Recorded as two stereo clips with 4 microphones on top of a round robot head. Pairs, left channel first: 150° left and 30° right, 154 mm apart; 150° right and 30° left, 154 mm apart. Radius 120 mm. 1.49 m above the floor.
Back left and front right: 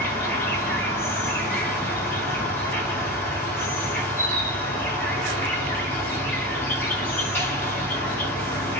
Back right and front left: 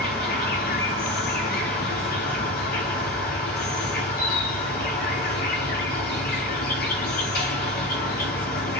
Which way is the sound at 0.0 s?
135° right.